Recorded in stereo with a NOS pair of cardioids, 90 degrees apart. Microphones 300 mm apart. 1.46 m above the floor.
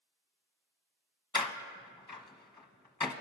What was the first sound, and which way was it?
A door slam, 15° left.